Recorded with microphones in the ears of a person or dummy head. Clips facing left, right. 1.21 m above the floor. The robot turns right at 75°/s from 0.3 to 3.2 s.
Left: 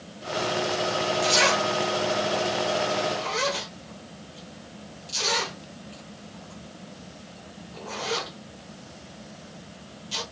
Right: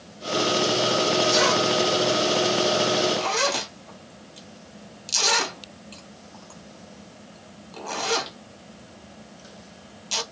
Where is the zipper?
45° left (ahead or behind), 1.1 m; by 10.2 s 70° right (ahead or behind), 1.1 m.